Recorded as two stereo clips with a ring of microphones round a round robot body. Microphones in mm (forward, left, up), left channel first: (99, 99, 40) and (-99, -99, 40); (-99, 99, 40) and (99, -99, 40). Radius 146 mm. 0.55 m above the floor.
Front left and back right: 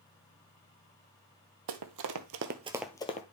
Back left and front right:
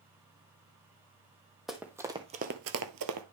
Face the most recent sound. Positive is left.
turn(degrees=-15)